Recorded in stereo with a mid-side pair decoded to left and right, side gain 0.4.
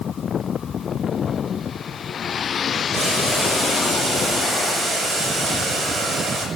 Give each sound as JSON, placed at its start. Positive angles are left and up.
{"t": 2.9, "sound": "boiling", "azimuth_deg": -55, "distance_m": 6.5}